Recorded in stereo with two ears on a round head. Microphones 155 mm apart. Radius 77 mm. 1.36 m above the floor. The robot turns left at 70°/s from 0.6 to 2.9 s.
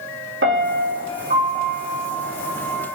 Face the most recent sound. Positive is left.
turn(degrees=125)